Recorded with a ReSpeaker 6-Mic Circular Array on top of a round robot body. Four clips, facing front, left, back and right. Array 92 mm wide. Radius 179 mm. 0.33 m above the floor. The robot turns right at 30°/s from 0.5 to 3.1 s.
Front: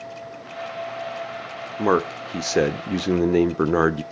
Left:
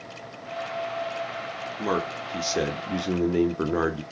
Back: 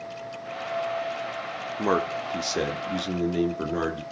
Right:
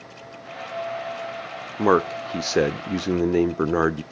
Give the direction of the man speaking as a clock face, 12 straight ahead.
2 o'clock.